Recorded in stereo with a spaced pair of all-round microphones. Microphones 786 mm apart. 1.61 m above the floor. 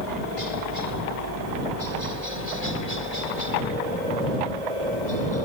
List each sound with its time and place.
0.0 s a helicopter: 60° right (ahead or behind); by 5.5 s 45° right (ahead or behind)